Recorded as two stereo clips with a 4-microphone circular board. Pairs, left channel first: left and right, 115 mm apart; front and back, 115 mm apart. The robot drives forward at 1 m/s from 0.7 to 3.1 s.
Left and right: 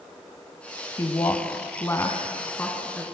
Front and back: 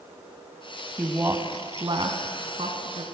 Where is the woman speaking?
115° left, 1.3 m; by 3.0 s 165° left, 2.5 m.